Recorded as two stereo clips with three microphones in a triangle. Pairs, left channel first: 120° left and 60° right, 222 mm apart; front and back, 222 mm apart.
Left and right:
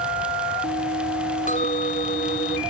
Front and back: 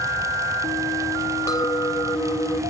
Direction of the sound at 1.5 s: 70° left.